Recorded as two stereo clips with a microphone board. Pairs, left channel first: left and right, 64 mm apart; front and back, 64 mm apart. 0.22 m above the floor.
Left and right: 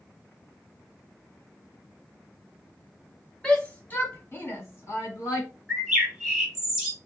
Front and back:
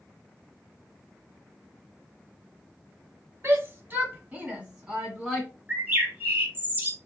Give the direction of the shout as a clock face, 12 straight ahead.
7 o'clock.